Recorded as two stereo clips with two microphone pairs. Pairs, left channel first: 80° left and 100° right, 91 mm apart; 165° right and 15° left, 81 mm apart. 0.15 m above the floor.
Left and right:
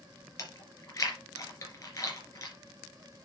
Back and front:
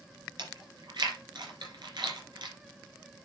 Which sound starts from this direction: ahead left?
Chewing, at 0.4 s.